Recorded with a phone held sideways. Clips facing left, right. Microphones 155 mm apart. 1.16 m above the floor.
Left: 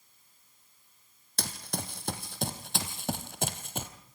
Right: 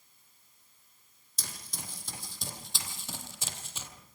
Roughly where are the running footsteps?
Left.